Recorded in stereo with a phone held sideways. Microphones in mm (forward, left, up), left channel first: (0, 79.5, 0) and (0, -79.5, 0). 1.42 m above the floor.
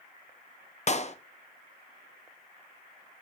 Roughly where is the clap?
Left.